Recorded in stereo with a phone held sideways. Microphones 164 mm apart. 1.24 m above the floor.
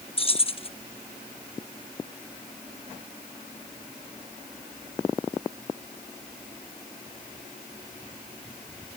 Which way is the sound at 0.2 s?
35° left (ahead or behind).